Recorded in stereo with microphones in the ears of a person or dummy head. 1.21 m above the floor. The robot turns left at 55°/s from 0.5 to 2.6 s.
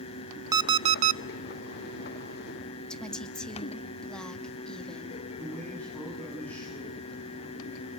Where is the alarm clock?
20° right, 0.5 m; by 1.2 s 60° right, 0.5 m.